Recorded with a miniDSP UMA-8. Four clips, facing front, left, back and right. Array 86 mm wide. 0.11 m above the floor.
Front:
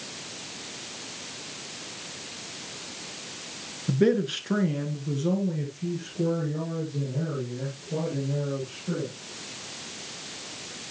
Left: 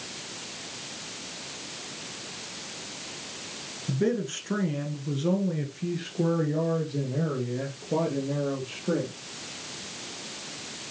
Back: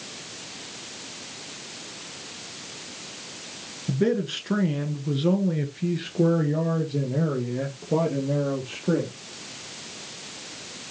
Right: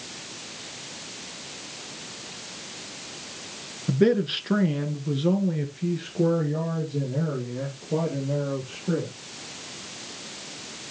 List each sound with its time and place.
3.9 s a man speaking: 65° right, 1.5 m; by 9.1 s 170° left, 3.5 m